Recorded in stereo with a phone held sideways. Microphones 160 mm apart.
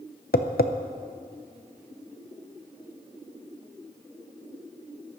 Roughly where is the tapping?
Left.